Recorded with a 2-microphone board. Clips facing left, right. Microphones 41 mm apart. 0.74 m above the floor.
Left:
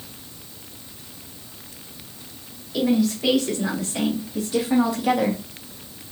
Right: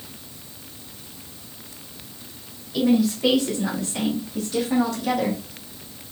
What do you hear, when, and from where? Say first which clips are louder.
2.7 s a woman speaking: right 1 dB; centre (ahead or behind), 3.5 m; by 5.4 s 20° left (ahead or behind), 1.0 m